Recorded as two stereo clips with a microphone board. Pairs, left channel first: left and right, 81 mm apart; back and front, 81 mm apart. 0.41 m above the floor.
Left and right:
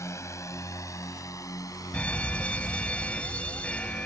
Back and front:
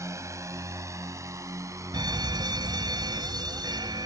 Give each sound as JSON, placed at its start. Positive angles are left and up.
{"t": 0.0, "sound": "a drone", "azimuth_deg": 45}
{"t": 1.9, "sound": "a fire alarm", "azimuth_deg": 15}